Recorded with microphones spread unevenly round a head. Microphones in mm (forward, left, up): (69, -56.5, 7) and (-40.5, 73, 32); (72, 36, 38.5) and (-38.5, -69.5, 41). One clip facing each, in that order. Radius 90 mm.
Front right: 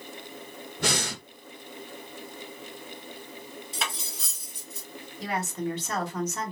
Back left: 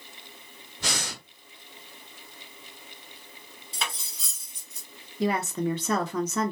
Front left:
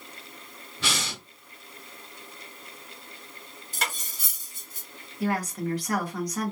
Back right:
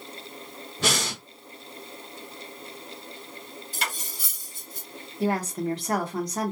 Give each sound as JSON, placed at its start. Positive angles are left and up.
{"t": 0.8, "sound": "breathing", "azimuth_deg": -85, "distance_m": 0.7}
{"t": 3.7, "sound": "cutlery clinking", "azimuth_deg": 50, "distance_m": 0.7}
{"t": 5.2, "sound": "a woman speaking", "azimuth_deg": 155, "distance_m": 0.7}